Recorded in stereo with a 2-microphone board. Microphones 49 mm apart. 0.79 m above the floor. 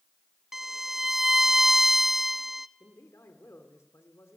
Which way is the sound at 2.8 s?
75° left (ahead or behind).